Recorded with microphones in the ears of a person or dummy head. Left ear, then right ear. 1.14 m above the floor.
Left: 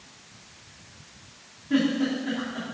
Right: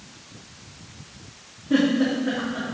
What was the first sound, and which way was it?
A giggle, 5° right (ahead or behind).